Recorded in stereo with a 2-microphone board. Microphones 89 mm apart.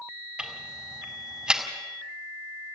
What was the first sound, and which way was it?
Ticking, 10° right (ahead or behind).